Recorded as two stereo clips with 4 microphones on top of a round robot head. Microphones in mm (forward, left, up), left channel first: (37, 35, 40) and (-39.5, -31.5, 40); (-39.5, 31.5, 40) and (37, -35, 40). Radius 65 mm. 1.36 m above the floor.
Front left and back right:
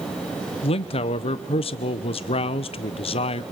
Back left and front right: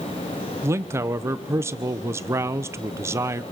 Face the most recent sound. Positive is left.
turn(degrees=20)